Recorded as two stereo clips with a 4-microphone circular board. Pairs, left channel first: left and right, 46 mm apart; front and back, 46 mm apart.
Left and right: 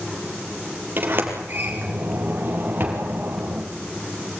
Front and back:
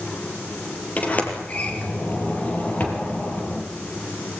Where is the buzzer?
No buzzer in this recording.